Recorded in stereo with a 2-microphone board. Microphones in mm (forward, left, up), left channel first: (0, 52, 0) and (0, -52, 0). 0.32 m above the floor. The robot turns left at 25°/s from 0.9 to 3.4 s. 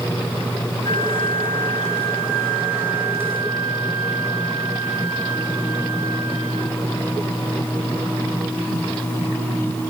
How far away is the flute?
About 5.5 m.